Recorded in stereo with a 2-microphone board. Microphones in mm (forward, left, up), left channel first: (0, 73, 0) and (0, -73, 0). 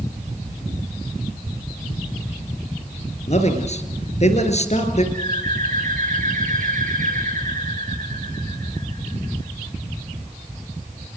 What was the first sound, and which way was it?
A man speaking, 50° left (ahead or behind).